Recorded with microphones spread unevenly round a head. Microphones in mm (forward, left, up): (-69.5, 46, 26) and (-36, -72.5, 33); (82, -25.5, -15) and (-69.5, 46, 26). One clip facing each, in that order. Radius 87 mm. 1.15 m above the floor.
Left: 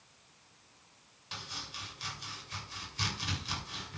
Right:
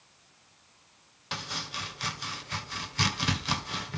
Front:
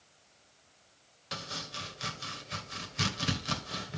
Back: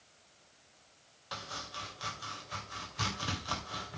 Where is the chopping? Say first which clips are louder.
Right 8 dB, front 2 dB; 90° right, 2 m.